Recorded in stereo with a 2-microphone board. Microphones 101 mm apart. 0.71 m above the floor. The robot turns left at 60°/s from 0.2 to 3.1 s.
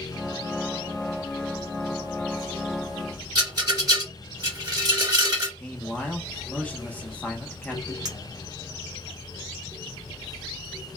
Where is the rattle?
40° right (ahead or behind), 2.0 m.